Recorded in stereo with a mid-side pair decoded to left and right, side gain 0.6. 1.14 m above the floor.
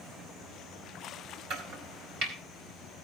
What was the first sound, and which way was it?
Chopping, 60° right.